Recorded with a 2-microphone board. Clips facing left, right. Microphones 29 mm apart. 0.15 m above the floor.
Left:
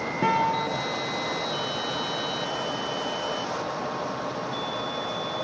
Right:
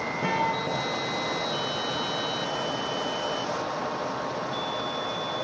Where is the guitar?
85° left, 5.5 m.